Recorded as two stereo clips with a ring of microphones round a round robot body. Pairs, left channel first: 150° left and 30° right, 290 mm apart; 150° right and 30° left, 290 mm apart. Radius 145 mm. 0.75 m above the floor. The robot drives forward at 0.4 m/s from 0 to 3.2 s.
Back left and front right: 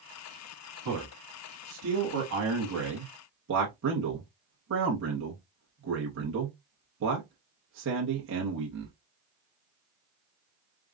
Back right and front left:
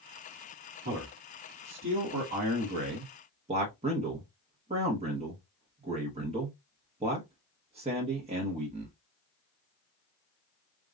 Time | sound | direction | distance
0.8 | a man speaking | 15° right | 1.8 m